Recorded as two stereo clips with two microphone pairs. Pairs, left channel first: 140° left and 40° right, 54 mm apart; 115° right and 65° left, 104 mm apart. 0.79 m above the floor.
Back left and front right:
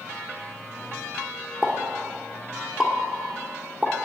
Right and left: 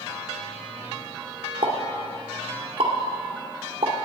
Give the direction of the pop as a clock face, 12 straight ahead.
11 o'clock.